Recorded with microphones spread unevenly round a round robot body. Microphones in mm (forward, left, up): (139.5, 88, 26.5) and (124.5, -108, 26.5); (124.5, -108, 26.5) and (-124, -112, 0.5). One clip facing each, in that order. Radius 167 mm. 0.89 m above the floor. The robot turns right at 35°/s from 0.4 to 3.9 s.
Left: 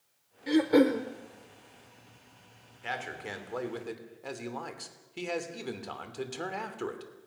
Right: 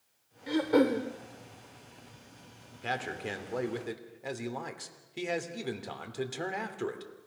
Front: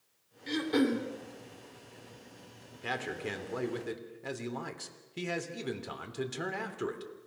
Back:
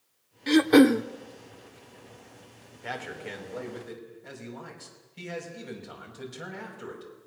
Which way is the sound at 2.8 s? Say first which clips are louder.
Right 3 dB, front 1 dB; 50° right.